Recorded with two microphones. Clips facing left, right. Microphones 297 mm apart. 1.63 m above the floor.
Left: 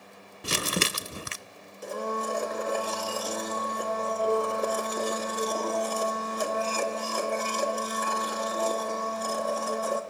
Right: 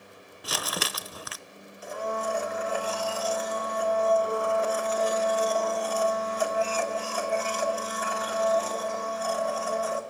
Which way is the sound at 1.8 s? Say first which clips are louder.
Left 1 dB; 45° left (ahead or behind).